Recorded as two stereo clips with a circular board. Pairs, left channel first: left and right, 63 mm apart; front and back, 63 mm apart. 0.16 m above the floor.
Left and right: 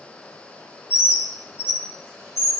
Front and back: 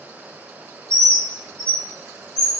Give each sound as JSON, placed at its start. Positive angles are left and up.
{"t": 0.9, "sound": "a bird", "azimuth_deg": 70, "distance_m": 1.5}